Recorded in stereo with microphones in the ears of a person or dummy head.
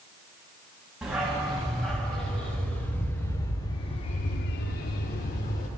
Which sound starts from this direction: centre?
A dog barking, at 1.0 s.